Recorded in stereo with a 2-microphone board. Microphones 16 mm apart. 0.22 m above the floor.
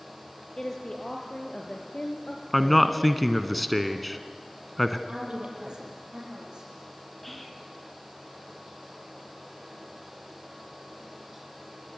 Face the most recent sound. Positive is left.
turn(degrees=10)  # may be behind; listen again after turning